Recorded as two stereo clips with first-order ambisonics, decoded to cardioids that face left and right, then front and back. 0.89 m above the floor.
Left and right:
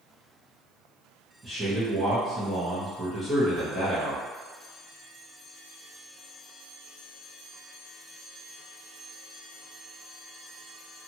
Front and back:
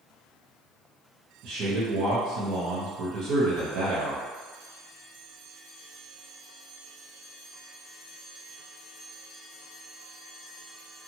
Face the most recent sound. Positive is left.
turn(degrees=-165)